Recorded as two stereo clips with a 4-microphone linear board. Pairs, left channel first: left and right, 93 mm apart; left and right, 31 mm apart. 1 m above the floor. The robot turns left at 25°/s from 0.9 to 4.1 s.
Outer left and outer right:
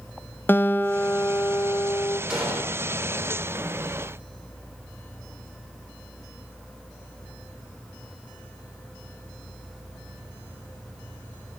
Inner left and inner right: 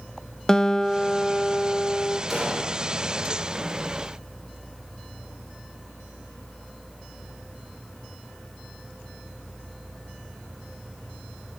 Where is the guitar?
160° left, 0.5 m; by 2.2 s 125° left, 0.5 m.